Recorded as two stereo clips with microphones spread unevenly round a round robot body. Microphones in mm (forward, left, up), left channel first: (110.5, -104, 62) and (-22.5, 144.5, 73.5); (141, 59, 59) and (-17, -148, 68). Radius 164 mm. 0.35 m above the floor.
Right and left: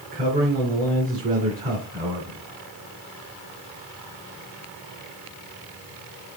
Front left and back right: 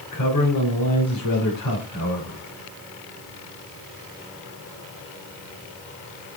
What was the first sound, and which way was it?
A man speaking, 55° left.